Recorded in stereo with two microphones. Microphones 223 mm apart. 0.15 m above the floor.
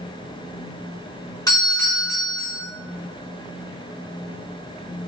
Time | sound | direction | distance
1.5 | a doorbell | 15° left (ahead or behind) | 1.5 m